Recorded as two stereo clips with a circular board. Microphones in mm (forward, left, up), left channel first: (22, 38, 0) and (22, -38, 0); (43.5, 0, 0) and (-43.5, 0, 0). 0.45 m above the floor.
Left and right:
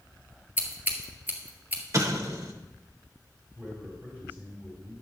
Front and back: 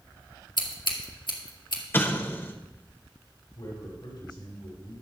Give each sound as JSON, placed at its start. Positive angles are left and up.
{"t": 0.6, "sound": "scissors", "azimuth_deg": -25, "distance_m": 1.9}
{"t": 1.9, "sound": "an explosion", "azimuth_deg": -55, "distance_m": 1.0}
{"t": 3.5, "sound": "a man speaking", "azimuth_deg": -25, "distance_m": 5.5}